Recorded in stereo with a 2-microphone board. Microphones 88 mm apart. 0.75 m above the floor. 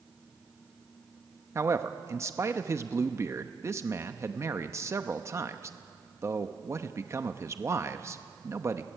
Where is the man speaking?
30° right (ahead or behind), 0.9 m.